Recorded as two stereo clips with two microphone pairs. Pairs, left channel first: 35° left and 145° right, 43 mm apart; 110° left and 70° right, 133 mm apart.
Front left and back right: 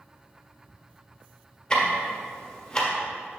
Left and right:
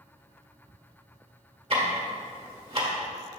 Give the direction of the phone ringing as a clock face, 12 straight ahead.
I don't hear a phone ringing.